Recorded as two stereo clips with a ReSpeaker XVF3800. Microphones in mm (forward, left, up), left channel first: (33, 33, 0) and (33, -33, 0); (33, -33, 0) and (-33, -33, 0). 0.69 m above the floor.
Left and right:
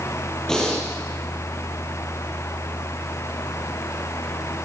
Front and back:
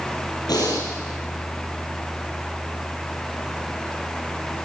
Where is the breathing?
10° left, 7 m.